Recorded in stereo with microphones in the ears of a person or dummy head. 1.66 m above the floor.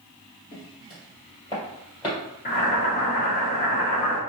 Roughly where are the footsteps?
Left.